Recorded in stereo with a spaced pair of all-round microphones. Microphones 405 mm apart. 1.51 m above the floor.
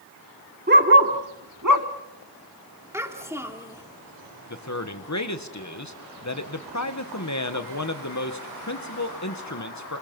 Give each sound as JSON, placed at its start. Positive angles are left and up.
{"t": 0.7, "sound": "a dog barking", "side_deg": -25, "distance_m": 1.7}
{"t": 2.9, "sound": "a child speaking", "side_deg": -5, "distance_m": 3.0}
{"t": 4.5, "sound": "a man speaking", "side_deg": 45, "distance_m": 1.5}